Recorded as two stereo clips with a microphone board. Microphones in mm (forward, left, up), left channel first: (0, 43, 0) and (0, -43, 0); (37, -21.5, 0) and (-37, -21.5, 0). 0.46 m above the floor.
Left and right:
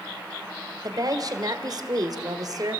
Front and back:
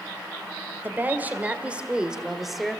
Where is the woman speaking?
120° right, 2.0 m; by 2.8 s 85° right, 1.6 m.